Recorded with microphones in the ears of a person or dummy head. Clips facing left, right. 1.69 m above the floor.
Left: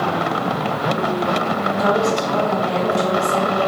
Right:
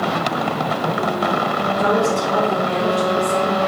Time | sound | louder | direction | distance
1.8 | a woman speaking | even | 55° right (ahead or behind) | 1.3 m